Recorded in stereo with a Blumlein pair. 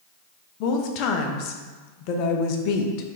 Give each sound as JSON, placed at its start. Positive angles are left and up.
{"t": 0.6, "sound": "a woman speaking", "azimuth_deg": 40, "distance_m": 0.5}